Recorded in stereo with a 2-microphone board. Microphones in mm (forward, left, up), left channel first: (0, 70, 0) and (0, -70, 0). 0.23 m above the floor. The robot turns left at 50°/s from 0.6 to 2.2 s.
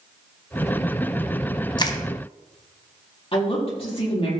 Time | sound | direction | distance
1.8 | crushing | 30° left (ahead or behind) | 1.1 m
3.3 | a woman speaking | 40° left (ahead or behind) | 6 m